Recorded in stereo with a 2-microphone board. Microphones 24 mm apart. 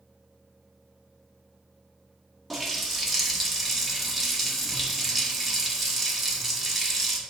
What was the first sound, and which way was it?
A running tap, 5° left (ahead or behind).